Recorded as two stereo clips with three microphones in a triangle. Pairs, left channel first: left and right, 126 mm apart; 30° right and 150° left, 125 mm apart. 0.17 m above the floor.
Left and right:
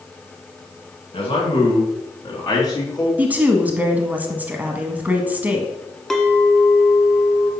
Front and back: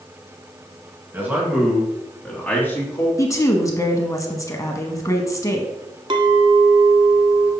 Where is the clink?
175° left, 0.9 m.